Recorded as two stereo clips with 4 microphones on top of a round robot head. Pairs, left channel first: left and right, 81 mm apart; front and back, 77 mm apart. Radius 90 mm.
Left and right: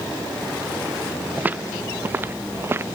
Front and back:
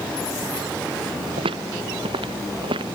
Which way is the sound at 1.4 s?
160° right.